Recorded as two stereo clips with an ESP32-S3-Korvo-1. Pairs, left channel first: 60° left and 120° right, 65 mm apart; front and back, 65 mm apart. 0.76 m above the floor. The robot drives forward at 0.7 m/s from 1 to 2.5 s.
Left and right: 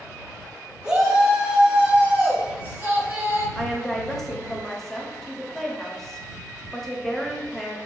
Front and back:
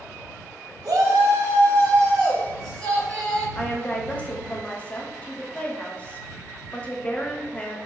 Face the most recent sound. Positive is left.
turn(degrees=-15)